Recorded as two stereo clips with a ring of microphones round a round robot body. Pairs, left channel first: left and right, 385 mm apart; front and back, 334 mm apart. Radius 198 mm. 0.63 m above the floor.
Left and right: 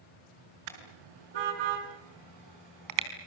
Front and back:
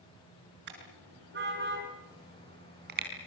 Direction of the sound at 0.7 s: 115° right.